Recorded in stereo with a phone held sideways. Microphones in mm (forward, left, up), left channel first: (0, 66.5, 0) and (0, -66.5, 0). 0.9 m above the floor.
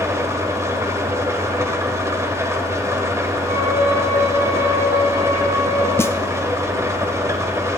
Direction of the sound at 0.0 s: 20° right (ahead or behind).